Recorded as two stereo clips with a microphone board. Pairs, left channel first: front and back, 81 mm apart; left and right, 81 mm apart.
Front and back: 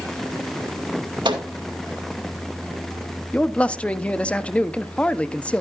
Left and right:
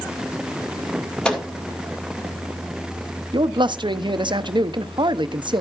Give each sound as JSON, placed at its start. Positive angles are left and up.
{"t": 1.2, "sound": "a microwave", "azimuth_deg": 170, "distance_m": 2.0}
{"t": 3.3, "sound": "a man speaking", "azimuth_deg": -75, "distance_m": 0.7}